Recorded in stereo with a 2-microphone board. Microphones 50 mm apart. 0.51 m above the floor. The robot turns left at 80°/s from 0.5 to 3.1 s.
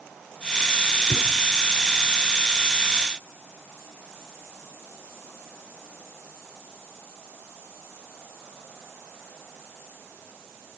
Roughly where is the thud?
Left.